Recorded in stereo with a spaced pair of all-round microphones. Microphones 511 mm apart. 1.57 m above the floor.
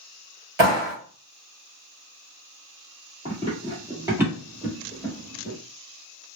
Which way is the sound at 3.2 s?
15° right (ahead or behind).